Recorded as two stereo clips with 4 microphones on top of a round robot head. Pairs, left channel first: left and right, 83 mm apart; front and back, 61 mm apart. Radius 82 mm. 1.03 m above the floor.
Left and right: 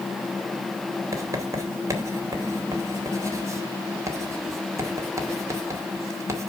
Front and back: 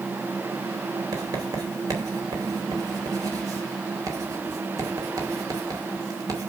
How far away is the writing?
About 2.5 m.